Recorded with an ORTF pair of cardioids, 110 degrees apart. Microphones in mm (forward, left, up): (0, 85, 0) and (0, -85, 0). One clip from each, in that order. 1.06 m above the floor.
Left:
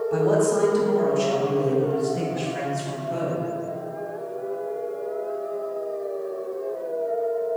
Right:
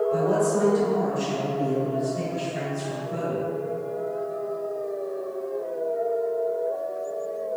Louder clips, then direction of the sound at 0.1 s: Left 2 dB; 45° left.